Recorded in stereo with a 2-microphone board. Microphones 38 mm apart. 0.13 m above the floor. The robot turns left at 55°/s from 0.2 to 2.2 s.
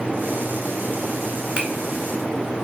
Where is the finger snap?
25° right (ahead or behind), 1.0 m.